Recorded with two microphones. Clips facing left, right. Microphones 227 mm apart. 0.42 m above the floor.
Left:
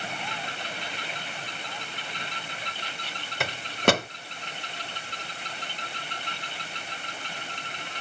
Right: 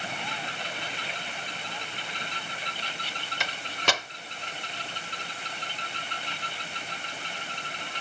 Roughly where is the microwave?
Left.